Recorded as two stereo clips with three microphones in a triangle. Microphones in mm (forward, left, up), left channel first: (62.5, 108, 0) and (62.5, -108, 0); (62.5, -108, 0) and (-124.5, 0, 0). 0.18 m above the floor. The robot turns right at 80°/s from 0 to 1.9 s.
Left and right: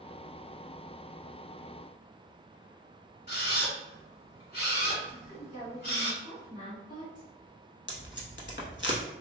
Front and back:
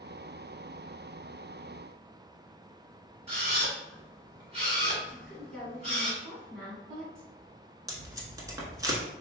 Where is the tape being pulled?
80° left, 0.7 m.